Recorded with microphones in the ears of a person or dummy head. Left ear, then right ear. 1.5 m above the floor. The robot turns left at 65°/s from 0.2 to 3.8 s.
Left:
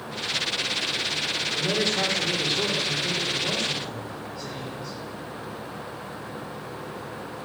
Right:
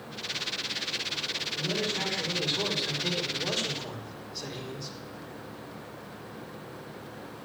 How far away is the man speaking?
About 4.5 m.